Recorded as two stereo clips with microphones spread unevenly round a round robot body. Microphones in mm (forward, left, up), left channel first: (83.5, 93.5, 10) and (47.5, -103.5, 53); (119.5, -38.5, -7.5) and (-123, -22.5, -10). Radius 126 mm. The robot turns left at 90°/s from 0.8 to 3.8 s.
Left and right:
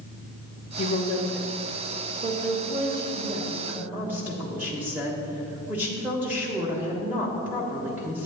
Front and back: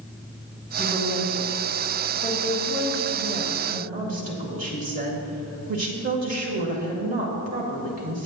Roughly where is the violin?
No violin in this recording.